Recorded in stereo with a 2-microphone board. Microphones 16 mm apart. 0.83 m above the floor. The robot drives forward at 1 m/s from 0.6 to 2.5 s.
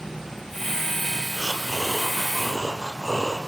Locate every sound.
0.0 s an insect: 45° right (ahead or behind), 8.5 m; by 3.5 s 35° right (ahead or behind), 10 m
1.3 s breathing: 45° right (ahead or behind), 3.5 m; by 3.4 s 35° right (ahead or behind), 4.5 m